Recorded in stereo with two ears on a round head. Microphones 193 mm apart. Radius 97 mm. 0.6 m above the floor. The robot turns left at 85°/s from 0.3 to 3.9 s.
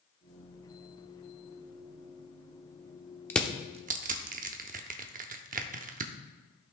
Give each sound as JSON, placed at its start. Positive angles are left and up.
{"t": 3.3, "sound": "crushing", "side_deg": 10, "distance_m": 0.7}